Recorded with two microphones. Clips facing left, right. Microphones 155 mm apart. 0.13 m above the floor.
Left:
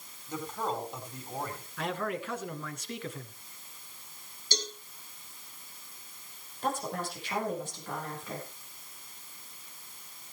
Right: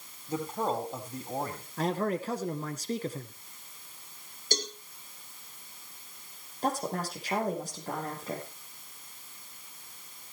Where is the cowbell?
50° right (ahead or behind), 2 m.